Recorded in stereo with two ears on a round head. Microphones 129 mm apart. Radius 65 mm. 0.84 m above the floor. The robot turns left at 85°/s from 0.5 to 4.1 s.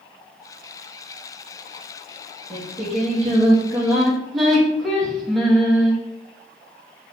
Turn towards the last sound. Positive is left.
turn(degrees=180)